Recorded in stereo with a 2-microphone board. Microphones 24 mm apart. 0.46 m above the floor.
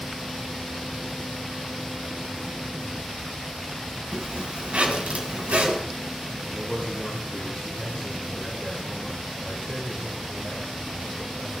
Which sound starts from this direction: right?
A zipper, at 4.1 s.